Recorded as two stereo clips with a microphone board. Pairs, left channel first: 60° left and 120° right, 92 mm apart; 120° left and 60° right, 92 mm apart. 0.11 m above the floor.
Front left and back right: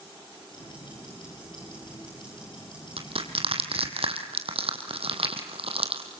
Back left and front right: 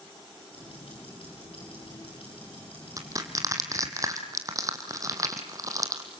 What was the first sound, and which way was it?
Ticking, 100° left.